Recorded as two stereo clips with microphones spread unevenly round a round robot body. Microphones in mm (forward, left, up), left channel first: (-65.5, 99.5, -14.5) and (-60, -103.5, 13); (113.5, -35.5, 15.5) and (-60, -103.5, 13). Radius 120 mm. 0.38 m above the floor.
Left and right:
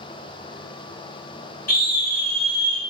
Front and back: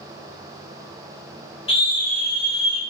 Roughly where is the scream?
Left.